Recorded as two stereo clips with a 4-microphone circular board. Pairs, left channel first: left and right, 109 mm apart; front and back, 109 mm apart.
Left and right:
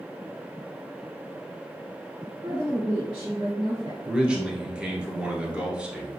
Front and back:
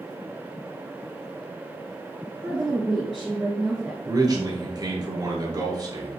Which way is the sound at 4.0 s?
165° right.